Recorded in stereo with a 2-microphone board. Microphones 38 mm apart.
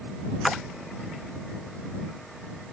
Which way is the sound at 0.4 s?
5° right (ahead or behind).